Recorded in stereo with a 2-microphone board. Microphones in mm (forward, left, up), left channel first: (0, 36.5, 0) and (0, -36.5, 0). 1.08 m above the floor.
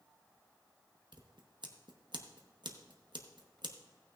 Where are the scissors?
85° right, 0.9 m.